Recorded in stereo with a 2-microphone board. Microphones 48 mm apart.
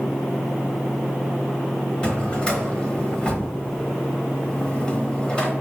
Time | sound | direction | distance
2.0 | a drawer | 20° left (ahead or behind) | 0.9 m